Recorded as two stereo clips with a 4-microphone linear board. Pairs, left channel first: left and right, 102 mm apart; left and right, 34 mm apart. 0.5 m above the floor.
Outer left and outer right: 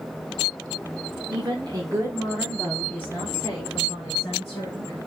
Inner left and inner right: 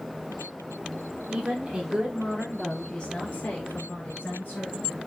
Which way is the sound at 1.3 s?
50° right (ahead or behind).